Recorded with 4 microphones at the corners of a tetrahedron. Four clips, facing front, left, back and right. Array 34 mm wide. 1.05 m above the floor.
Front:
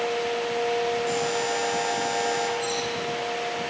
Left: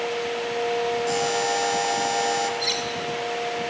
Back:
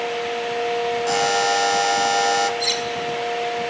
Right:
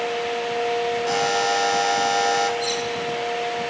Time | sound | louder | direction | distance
1.1 | a buzzer | right 3 dB, back 7 dB | 155° right | 2.5 m
2.6 | cutlery clinking | even, back 6 dB | 155° left | 5 m